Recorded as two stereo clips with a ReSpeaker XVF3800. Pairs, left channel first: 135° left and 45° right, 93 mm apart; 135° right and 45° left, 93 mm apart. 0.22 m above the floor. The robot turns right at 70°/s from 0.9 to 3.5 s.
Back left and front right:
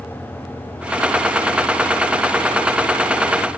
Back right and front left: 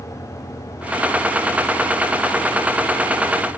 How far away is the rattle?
No rattle in this recording.